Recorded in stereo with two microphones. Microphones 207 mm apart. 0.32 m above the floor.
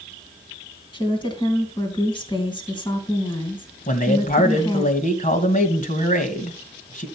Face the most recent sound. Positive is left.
turn(degrees=40)  # may be behind; listen again after turning